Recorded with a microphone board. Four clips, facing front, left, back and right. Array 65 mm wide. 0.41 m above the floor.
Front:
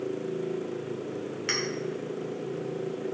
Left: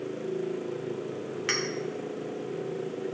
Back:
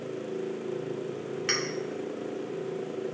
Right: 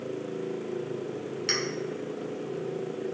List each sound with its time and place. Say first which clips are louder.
1.5 s a clink: left 1 dB, back 1 dB; 95° left, 0.7 m